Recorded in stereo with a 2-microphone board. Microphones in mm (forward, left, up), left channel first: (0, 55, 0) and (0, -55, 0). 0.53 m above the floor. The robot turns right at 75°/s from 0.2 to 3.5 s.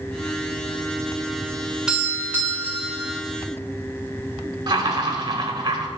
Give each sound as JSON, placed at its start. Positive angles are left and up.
{"t": 1.9, "sound": "a doorbell", "side_deg": -5, "distance_m": 1.0}
{"t": 4.7, "sound": "laughter", "side_deg": -40, "distance_m": 1.5}